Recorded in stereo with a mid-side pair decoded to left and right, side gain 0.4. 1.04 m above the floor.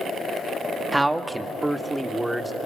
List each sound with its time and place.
0.9 s a man speaking: 15° right, 1.7 m; by 2.5 s 10° right, 3 m